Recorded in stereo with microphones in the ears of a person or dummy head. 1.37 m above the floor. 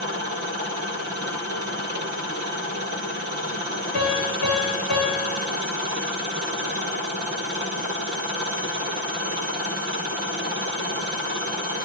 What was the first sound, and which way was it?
A piano, 50° left (ahead or behind).